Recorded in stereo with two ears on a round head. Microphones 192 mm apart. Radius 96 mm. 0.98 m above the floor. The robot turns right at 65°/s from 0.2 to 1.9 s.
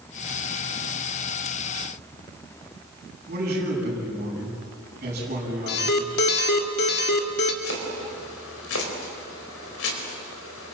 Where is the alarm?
55° left (ahead or behind), 2 m.